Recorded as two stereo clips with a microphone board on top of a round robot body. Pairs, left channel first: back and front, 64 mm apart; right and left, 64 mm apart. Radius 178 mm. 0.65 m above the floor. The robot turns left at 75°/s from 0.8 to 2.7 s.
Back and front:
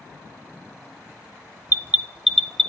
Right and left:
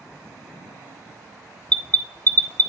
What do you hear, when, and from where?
1.7 s an alarm: 35° right, 0.5 m; by 2.7 s 110° right, 0.5 m